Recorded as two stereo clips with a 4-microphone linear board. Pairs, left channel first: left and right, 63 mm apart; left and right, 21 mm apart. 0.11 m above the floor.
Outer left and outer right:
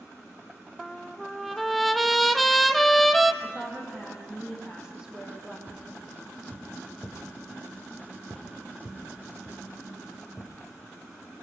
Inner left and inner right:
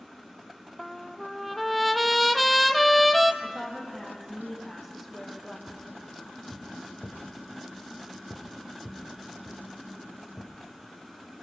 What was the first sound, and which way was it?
A trumpet, centre (ahead or behind).